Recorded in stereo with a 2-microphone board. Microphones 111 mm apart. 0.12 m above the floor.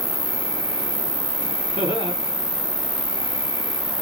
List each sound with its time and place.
0.0 s an insect: 55° left (ahead or behind), 0.8 m
1.8 s laughter: 45° right (ahead or behind), 2.5 m